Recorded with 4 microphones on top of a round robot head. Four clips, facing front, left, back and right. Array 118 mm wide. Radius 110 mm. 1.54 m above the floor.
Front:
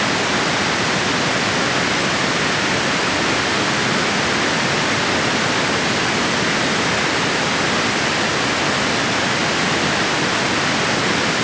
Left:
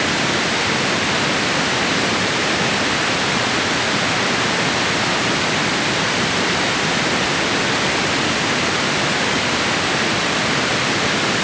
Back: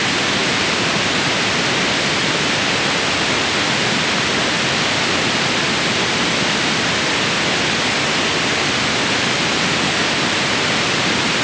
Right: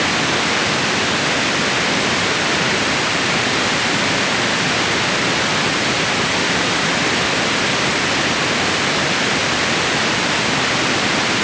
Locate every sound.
Only background noise.